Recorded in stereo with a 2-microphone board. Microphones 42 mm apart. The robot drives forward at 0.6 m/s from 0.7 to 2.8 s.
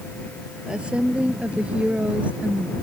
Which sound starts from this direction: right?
A woman speaking, at 0.7 s.